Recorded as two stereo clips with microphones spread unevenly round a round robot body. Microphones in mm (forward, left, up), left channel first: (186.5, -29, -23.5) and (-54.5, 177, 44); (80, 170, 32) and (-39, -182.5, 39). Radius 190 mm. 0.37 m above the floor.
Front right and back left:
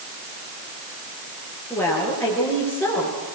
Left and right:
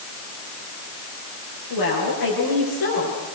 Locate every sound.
1.7 s a woman speaking: 40° left, 8 m